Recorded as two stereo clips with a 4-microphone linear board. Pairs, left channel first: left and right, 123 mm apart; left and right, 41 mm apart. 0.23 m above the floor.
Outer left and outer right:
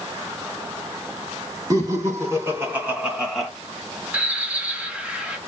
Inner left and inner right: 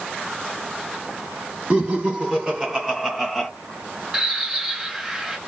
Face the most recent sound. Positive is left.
turn(degrees=-10)  # may be behind; listen again after turning